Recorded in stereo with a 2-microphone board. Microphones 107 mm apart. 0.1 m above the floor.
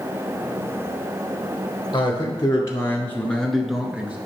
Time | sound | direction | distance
1.9 | a man speaking | 45° left (ahead or behind) | 1.4 m